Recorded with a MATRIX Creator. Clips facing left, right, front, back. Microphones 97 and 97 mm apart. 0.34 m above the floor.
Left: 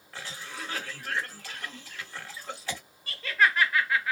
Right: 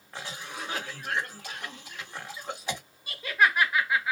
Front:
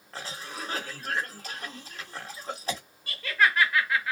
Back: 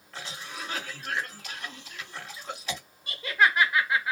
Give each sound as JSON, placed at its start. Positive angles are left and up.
{"t": 0.1, "sound": "a cough", "azimuth_deg": -25, "distance_m": 1.5}
{"t": 3.1, "sound": "laughter", "azimuth_deg": -140, "distance_m": 0.9}